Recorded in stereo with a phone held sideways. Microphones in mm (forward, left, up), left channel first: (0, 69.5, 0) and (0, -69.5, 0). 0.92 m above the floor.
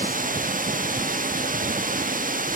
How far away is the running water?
About 1.0 m.